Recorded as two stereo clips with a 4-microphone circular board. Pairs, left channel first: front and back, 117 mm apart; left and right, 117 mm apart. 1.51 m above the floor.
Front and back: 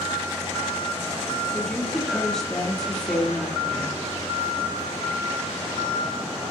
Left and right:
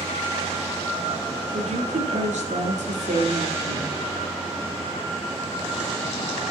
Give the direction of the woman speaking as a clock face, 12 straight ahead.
3 o'clock.